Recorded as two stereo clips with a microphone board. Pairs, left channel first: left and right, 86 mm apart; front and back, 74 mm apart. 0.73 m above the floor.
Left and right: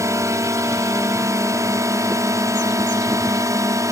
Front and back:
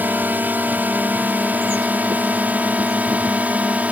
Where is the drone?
125° right; by 3.9 s 120° right.